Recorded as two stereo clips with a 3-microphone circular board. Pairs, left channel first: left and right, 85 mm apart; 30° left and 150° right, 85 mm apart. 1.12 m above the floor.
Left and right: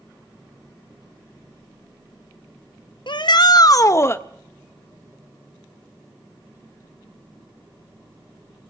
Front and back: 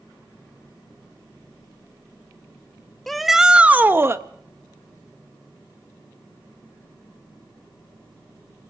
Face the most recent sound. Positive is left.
turn(degrees=155)